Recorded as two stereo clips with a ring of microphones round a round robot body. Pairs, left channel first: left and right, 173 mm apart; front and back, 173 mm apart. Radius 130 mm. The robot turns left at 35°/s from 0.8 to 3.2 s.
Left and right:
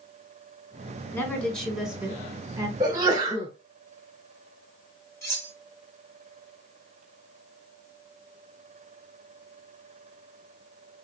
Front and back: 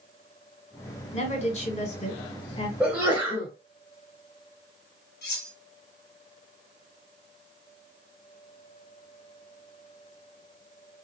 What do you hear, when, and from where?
1.1 s a woman speaking: 20° left, 1.5 m; by 2.7 s 35° right, 1.5 m
2.8 s a sneeze: 105° right, 0.9 m; by 3.5 s 120° right, 0.9 m
5.2 s cutlery clinking: 15° left, 1.4 m